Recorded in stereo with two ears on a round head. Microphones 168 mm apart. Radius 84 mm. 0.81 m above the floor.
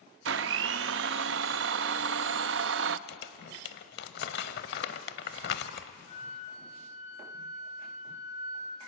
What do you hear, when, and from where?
0.2 s a blender: 70° right (ahead or behind), 0.5 m
3.1 s crumpling: 60° left (ahead or behind), 0.9 m
6.1 s a flute: 35° left (ahead or behind), 3 m